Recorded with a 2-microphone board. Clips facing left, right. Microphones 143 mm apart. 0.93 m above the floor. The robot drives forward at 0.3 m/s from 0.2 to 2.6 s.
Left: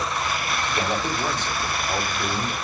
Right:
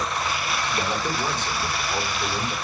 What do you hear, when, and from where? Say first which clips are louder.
0.7 s a man speaking: left 2 dB; 65° left (ahead or behind), 6 m; by 2.5 s 60° left (ahead or behind), 6 m